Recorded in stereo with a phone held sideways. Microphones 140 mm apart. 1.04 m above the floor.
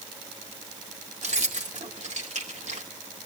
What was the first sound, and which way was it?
Keys jangling, 55° right (ahead or behind).